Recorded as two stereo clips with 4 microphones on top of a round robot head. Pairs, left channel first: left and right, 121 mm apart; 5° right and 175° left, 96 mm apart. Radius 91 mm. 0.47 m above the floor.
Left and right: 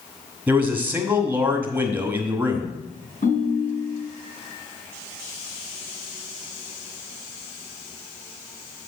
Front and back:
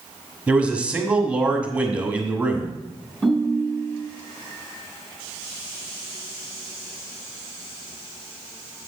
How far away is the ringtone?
About 2.5 m.